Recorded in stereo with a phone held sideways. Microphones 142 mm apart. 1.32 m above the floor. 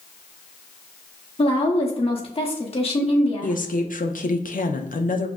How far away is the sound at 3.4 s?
About 0.5 m.